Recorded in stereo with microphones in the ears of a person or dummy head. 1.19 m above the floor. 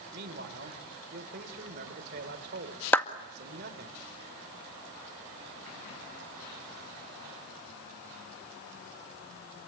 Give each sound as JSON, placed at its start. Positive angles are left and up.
{"t": 0.1, "sound": "a man speaking", "side_deg": -55, "distance_m": 3.5}
{"t": 2.9, "sound": "a clap", "side_deg": 5, "distance_m": 1.8}